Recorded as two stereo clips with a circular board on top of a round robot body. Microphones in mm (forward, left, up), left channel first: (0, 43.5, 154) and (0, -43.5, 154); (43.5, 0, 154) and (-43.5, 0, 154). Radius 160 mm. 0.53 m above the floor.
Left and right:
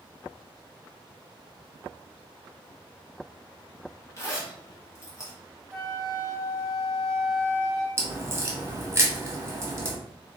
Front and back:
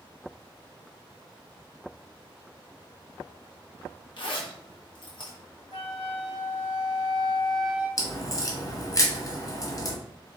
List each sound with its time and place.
4.2 s a zipper: 30° left, 1.4 m
5.7 s a flute: 5° right, 2.5 m
8.0 s a crack: 35° right, 1.8 m